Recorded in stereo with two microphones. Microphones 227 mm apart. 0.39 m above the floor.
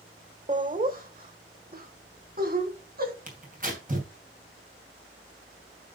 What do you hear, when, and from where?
0.5 s laughter: 30° right (ahead or behind), 1.0 m; by 3.1 s 40° right (ahead or behind), 3 m
3.3 s tearing paper: 35° right (ahead or behind), 2.5 m